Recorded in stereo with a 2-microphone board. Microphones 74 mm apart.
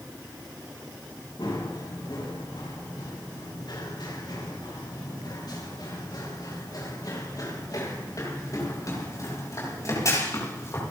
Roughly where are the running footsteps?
Left.